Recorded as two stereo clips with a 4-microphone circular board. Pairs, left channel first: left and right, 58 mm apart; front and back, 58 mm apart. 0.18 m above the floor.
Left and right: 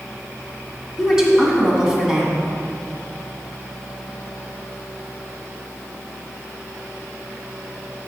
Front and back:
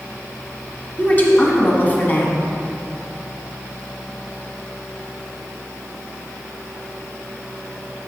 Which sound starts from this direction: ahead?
A woman speaking, at 1.0 s.